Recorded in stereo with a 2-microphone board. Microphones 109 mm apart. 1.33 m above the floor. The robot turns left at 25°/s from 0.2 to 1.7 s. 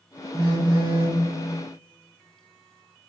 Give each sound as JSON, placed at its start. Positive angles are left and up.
{"t": 0.3, "sound": "a phone buzzing", "side_deg": -35, "distance_m": 0.8}